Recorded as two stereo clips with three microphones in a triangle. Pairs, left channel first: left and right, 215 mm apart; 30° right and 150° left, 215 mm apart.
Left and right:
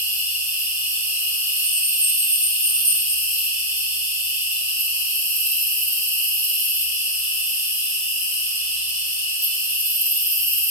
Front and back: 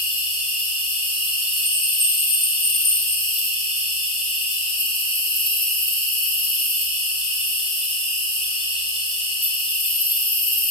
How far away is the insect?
About 0.9 m.